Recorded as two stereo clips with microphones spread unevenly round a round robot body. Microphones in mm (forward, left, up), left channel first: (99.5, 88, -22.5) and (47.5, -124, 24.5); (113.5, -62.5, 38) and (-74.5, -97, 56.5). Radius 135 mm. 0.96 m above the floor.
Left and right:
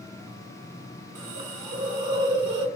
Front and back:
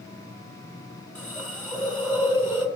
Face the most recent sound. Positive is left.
turn(degrees=-70)